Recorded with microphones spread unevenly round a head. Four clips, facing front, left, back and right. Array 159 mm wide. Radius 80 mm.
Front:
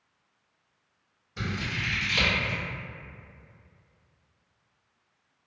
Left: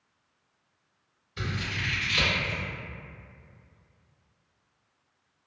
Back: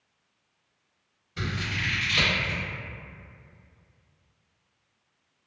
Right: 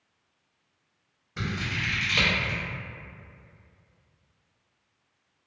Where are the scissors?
95° right, 0.9 m.